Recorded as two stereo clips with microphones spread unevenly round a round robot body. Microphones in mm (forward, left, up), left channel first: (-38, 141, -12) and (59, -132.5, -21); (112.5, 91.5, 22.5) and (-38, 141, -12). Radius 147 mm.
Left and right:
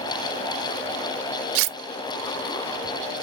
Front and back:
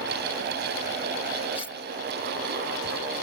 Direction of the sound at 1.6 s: 90° right.